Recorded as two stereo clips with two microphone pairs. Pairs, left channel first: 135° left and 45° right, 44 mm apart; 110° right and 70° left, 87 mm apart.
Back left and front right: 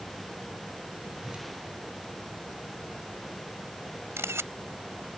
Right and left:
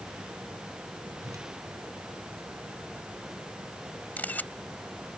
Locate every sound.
1.2 s a whoosh: 20° left
4.2 s a camera shutter: 40° right